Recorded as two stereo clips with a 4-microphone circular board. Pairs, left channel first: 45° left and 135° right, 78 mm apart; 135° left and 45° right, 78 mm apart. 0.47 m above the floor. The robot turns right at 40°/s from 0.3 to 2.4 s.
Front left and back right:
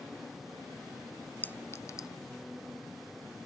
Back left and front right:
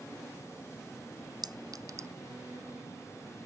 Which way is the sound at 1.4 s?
20° right.